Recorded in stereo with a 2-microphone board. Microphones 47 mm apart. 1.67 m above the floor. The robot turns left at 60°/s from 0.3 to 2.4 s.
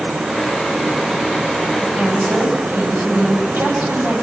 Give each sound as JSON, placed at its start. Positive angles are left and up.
{"t": 1.8, "sound": "a woman speaking", "azimuth_deg": -5, "distance_m": 9.5}